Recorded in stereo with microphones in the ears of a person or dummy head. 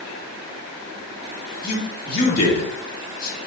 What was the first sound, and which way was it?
A man speaking, 55° left (ahead or behind).